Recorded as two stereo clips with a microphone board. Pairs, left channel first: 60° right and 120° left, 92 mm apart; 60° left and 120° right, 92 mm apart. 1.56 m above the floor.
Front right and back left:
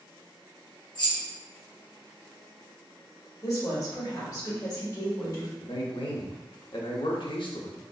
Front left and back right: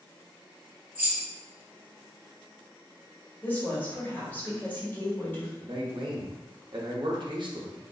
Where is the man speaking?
85° right, 0.7 m.